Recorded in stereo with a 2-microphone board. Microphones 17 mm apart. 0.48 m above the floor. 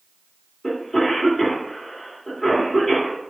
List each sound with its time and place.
0.6 s a cough: 5° left (ahead or behind), 1.4 m